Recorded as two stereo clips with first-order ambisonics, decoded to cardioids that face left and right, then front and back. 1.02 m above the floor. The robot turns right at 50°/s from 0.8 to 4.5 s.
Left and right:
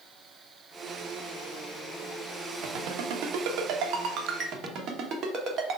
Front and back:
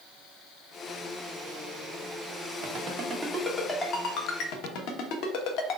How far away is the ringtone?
About 0.9 m.